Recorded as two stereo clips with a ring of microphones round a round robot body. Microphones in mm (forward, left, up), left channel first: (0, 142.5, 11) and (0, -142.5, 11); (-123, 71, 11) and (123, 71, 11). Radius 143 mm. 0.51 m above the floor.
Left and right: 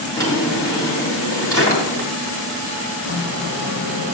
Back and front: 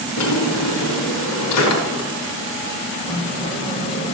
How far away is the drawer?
About 4 m.